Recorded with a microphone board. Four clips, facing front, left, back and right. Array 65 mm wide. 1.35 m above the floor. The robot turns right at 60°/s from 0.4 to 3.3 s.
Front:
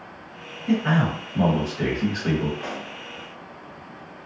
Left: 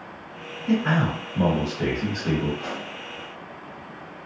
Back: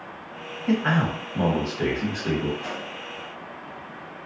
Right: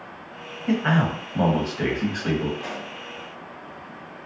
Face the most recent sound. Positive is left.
turn(degrees=50)